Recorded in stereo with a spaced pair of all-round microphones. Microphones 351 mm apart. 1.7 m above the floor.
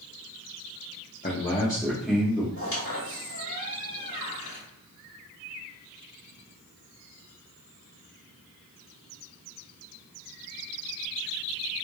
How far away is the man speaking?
About 0.8 m.